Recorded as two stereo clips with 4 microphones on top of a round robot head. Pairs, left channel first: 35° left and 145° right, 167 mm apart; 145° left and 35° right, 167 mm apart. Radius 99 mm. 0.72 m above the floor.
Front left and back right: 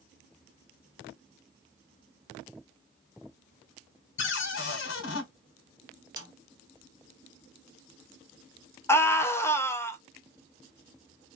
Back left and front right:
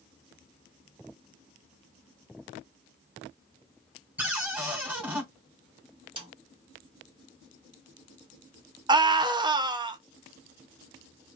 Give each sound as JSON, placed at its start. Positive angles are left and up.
{"t": 4.2, "sound": "a cupboard door", "azimuth_deg": 45, "distance_m": 0.9}
{"t": 6.2, "sound": "a snare drum", "azimuth_deg": -85, "distance_m": 1.3}
{"t": 8.9, "sound": "a scream", "azimuth_deg": -20, "distance_m": 0.6}